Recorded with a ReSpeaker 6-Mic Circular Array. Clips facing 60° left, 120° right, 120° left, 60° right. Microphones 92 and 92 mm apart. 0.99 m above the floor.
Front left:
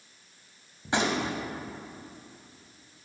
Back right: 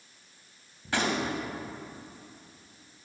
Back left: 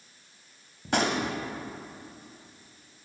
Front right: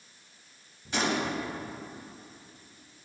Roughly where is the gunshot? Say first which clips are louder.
Front left 1 dB, back left 2 dB; behind left.